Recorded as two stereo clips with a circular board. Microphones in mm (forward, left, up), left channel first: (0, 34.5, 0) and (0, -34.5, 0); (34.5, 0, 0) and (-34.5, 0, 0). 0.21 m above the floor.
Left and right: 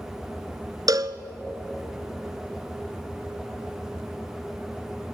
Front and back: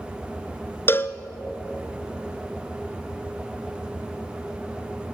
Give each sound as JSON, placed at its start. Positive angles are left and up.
{"t": 0.9, "sound": "a cowbell", "azimuth_deg": -55, "distance_m": 0.8}